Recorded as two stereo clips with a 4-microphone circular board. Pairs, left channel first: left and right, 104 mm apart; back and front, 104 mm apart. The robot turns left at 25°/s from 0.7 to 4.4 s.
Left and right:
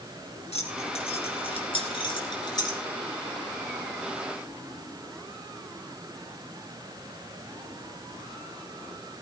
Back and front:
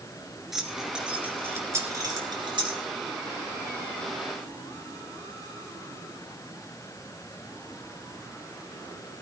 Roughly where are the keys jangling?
Left.